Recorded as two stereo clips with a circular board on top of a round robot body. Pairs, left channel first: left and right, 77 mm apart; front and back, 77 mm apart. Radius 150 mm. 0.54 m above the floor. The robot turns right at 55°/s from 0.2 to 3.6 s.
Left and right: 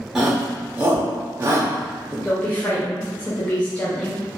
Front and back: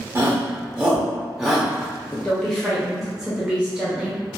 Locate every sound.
0.1 s a shout: 165° right, 0.8 m; by 2.1 s 55° right, 0.8 m
2.2 s a woman speaking: 60° left, 1.0 m; by 4.2 s 130° left, 1.0 m